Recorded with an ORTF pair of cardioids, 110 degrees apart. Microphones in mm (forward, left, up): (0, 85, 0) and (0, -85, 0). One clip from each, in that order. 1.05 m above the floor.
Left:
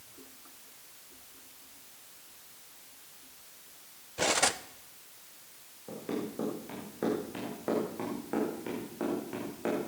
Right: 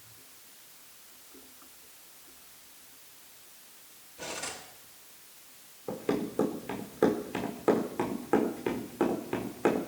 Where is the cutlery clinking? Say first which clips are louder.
Left 11 dB; 65° left, 0.9 m.